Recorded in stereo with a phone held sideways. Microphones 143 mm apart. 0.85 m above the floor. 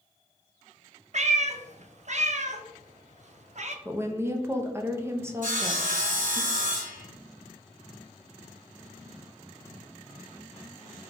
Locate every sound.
1.1 s a cat meowing: 55° right (ahead or behind), 0.5 m
3.9 s a woman speaking: 20° right (ahead or behind), 0.6 m
5.4 s sawing: 70° right (ahead or behind), 1.9 m